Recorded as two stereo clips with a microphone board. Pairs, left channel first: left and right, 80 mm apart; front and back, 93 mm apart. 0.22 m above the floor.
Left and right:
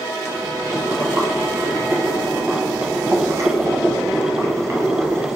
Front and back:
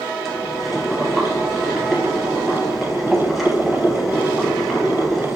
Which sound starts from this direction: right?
Boiling, at 0.2 s.